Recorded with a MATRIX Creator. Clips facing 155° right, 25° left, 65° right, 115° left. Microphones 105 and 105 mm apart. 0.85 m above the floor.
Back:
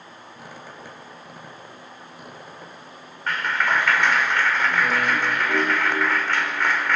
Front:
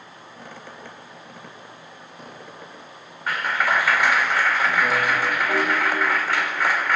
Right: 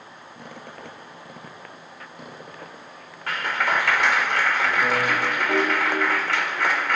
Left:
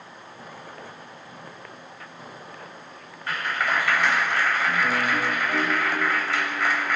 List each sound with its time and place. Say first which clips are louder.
0.3 s a squeak: front 1 dB, right 2 dB; 75° right, 3.5 m
3.3 s a clap: front 1 dB, right 2 dB; 60° right, 2 m